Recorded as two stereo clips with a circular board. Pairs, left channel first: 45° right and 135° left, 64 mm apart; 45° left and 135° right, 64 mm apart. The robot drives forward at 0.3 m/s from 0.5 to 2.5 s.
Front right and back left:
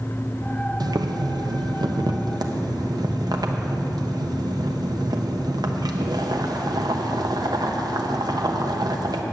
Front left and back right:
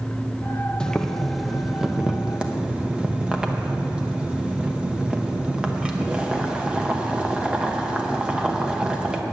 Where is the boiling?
125° left, 0.6 m; by 9.2 s 150° left, 1.0 m.